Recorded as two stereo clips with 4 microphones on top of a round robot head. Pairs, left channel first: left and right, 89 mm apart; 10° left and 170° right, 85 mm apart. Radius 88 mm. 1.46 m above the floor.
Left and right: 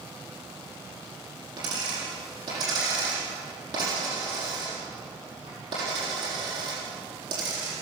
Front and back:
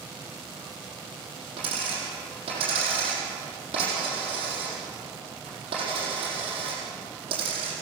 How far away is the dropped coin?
About 7 m.